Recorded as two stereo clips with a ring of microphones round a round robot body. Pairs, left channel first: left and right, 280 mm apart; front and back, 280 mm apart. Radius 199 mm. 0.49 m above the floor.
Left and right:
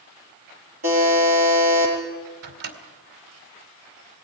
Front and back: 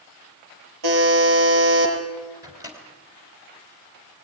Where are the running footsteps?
No running footsteps in this recording.